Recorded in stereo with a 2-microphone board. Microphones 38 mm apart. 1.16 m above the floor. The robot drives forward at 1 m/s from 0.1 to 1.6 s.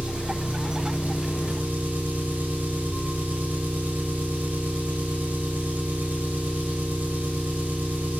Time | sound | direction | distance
0.0 | an engine running | 35° right (ahead or behind) | 3 m